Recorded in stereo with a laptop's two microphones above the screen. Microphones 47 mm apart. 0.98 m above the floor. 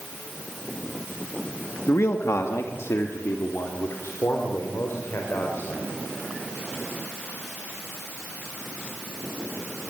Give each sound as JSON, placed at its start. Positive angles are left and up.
{"t": 1.9, "sound": "a man speaking", "side_deg": 65, "distance_m": 1.8}